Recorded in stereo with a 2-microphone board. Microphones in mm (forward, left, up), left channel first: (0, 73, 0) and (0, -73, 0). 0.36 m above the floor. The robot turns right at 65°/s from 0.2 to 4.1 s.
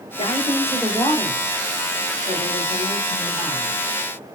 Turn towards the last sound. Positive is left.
turn(degrees=15)